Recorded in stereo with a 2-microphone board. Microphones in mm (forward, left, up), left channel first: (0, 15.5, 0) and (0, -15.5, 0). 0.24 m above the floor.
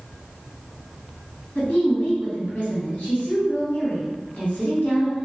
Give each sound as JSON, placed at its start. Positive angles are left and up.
{"t": 1.6, "sound": "a woman speaking", "side_deg": 45, "distance_m": 1.7}